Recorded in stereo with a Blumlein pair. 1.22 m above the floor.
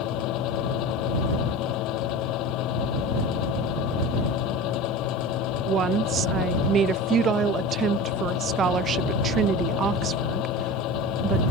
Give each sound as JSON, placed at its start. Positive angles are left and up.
{"t": 0.0, "sound": "a fan", "azimuth_deg": 40}
{"t": 5.7, "sound": "a woman speaking", "azimuth_deg": -25}